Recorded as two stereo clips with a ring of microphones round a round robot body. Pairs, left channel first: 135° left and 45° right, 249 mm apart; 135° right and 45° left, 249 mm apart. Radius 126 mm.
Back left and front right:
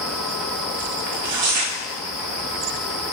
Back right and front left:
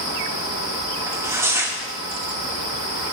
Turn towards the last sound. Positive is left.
turn(degrees=-35)